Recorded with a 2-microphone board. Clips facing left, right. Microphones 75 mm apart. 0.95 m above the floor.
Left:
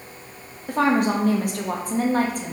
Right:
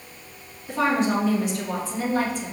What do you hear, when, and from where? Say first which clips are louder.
0.7 s a woman speaking: left 2 dB; 50° left (ahead or behind), 1.3 m